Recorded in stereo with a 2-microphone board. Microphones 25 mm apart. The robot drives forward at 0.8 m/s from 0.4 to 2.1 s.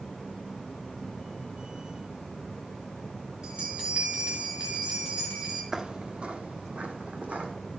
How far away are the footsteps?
About 0.5 m.